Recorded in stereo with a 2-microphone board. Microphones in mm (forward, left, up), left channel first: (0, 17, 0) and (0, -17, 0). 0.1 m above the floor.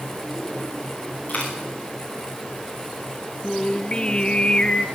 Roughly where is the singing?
Left.